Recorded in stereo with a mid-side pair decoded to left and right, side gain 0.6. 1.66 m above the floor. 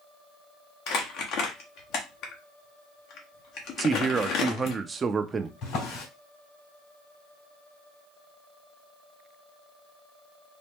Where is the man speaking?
30° right, 0.7 m.